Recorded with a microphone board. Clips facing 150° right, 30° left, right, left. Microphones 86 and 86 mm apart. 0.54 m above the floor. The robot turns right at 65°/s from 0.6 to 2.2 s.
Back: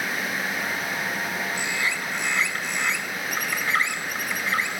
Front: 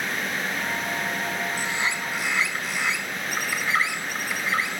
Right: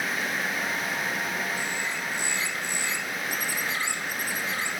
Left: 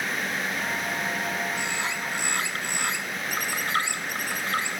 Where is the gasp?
I don't hear a gasp.